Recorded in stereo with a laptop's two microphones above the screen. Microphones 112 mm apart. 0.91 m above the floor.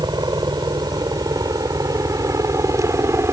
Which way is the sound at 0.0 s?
40° right (ahead or behind).